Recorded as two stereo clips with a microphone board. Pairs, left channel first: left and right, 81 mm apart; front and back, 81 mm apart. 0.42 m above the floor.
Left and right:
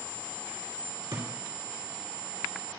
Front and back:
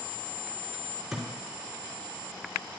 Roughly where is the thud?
Right.